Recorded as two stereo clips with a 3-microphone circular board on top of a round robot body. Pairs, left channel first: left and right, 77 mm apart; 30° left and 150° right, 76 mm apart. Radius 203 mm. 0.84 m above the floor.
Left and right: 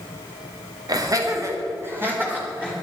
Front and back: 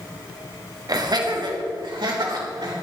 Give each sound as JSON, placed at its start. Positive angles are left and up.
{"t": 0.9, "sound": "laughter", "azimuth_deg": -120, "distance_m": 2.0}